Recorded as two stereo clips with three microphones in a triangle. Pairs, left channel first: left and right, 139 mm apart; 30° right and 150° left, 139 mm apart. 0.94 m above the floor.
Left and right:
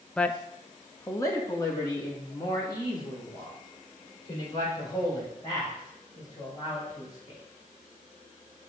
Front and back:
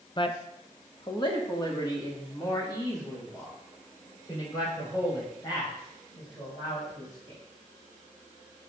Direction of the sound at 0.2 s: 10° left.